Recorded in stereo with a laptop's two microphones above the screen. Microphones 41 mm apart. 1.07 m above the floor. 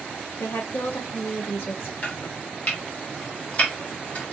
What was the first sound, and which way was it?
A woman speaking, 65° left (ahead or behind).